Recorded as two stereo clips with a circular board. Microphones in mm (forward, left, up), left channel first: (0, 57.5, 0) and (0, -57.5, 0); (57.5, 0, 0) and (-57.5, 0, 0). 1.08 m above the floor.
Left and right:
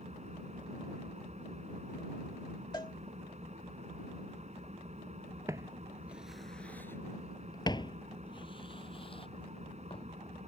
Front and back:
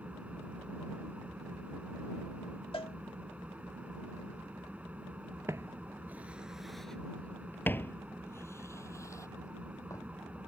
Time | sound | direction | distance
0.0 | an engine running | 100° right | ?
2.7 | a cowbell | 40° left | ?
5.5 | footsteps | 130° right | ?